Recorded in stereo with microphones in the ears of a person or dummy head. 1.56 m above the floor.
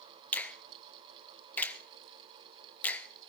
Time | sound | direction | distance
0.3 | a finger snap | 10° left (ahead or behind) | 0.5 m